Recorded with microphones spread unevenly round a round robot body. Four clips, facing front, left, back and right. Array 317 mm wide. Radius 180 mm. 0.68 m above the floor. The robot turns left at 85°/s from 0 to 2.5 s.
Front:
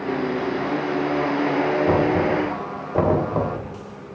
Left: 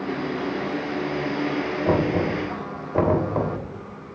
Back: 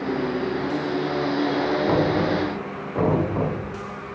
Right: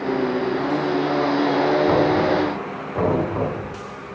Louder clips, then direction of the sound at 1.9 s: Right 4 dB, front 1 dB; 65° left.